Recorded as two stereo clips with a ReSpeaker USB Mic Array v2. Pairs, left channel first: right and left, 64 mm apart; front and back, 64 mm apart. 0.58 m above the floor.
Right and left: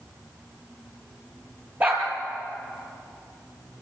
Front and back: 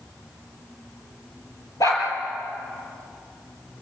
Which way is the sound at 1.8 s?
30° left.